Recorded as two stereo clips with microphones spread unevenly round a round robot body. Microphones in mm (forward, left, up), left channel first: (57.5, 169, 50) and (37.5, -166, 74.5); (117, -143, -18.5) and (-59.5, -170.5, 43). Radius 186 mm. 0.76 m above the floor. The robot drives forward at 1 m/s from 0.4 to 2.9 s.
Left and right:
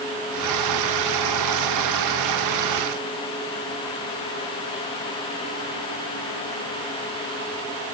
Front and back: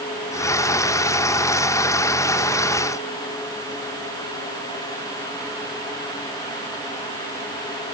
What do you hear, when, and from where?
Only background noise.